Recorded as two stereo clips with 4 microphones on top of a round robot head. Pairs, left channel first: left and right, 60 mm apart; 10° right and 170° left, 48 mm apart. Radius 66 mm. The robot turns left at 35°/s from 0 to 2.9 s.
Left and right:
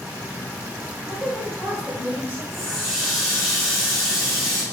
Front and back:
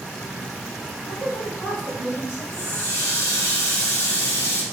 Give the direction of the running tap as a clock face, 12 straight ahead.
12 o'clock.